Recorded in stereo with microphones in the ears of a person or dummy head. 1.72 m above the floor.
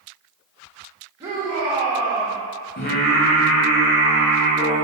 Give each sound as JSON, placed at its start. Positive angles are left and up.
{"t": 1.2, "sound": "a shout", "side_deg": -20, "distance_m": 1.4}
{"t": 2.8, "sound": "singing", "side_deg": 35, "distance_m": 1.2}